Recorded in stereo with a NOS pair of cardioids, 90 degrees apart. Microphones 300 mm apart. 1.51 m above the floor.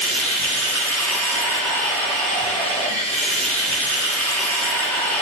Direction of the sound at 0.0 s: 5° left.